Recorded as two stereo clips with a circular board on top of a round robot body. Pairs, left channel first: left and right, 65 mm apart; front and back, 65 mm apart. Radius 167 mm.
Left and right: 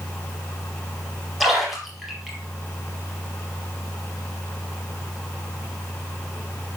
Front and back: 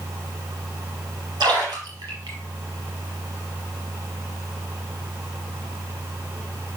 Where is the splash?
Straight behind, 4 m.